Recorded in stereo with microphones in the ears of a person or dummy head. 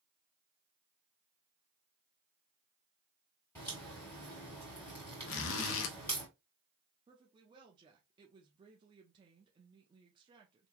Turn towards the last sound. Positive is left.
turn(degrees=-25)  # may be behind; listen again after turning